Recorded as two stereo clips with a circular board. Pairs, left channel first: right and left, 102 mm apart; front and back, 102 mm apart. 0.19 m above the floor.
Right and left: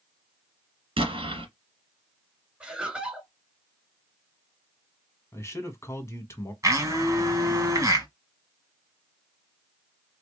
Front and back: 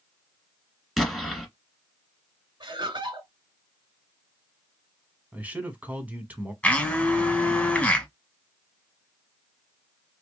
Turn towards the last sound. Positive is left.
turn(degrees=70)